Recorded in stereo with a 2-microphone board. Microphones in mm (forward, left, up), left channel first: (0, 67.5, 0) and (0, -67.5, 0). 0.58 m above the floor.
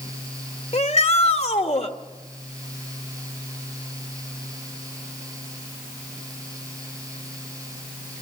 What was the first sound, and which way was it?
A shout, 50° left (ahead or behind).